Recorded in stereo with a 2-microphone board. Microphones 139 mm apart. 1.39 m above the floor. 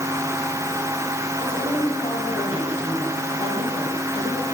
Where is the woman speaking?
45° left (ahead or behind), 9 m.